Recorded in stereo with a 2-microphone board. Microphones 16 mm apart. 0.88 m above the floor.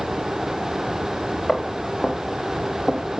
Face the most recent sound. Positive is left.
turn(degrees=50)  # may be behind; listen again after turning